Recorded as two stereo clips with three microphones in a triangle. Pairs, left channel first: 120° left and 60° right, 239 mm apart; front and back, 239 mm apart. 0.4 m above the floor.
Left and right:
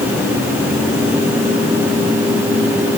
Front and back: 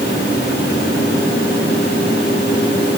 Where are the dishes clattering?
I don't hear dishes clattering.